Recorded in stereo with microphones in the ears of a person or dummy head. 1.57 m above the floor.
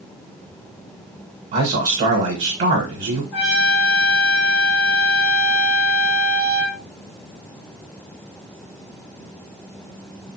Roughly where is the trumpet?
Left.